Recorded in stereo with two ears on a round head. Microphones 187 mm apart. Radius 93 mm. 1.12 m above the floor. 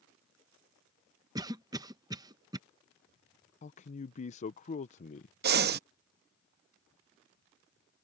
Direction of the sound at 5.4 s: 50° right (ahead or behind).